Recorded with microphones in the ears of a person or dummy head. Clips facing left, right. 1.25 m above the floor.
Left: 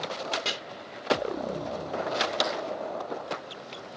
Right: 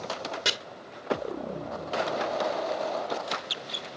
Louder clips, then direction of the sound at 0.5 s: Right 2 dB; 15° right (ahead or behind).